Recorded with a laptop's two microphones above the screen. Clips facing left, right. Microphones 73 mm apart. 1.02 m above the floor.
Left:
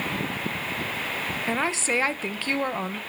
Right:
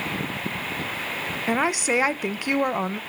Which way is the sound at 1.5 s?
15° right (ahead or behind).